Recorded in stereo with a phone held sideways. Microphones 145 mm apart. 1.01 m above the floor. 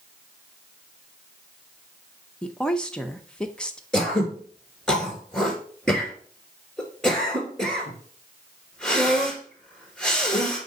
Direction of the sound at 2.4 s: 5° left (ahead or behind).